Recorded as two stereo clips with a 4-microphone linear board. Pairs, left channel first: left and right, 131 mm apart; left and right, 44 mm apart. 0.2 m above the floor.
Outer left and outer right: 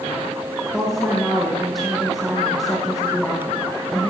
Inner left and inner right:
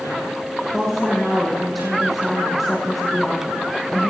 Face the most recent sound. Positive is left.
turn(degrees=0)  # may be behind; listen again after turning